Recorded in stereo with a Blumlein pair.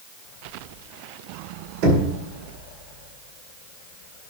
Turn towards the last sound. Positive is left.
turn(degrees=-45)